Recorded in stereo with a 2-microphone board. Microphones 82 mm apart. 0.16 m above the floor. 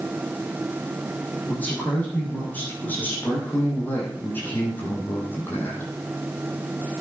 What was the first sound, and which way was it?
A man speaking, 20° left (ahead or behind).